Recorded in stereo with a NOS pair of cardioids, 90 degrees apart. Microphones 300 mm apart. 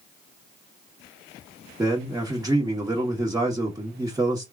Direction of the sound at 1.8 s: 10° right.